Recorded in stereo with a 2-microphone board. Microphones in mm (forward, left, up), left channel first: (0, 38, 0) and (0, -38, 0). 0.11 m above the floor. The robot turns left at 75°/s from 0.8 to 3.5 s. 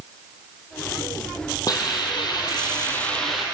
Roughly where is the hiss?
Behind left.